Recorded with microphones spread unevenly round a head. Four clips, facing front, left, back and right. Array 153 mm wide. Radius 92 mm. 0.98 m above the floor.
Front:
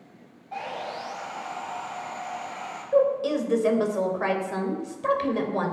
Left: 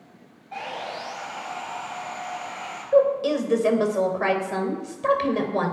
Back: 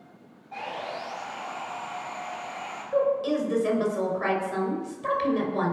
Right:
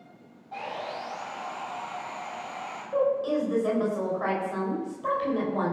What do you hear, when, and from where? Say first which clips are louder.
0.5 s sawing: left 2 dB, front 1 dB; 5° right, 4.5 m
2.9 s a woman speaking: left 6 dB, front 2 dB; 75° left, 3.5 m